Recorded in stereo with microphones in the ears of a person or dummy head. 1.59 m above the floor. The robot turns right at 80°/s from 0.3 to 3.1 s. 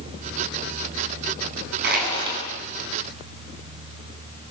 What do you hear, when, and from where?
1.8 s crushing: 60° right, 9.5 m; by 2.4 s 15° right, 9.5 m